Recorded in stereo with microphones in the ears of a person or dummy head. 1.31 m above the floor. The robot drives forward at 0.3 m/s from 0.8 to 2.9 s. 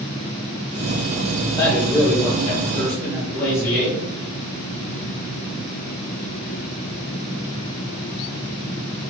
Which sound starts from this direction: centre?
A man speaking, at 1.6 s.